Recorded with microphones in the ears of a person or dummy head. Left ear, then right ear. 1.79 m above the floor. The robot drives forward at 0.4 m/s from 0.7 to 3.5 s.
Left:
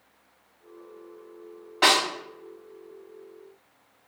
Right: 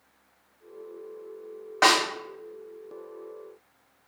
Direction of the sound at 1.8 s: 45° right (ahead or behind).